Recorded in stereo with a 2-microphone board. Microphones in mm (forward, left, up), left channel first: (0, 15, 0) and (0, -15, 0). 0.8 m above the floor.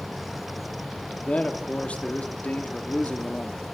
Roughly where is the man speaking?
Left.